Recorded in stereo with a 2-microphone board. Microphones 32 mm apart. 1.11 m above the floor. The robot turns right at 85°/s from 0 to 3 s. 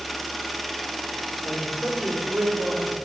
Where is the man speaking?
Straight behind, 5 m; by 3.0 s 55° right, 5 m.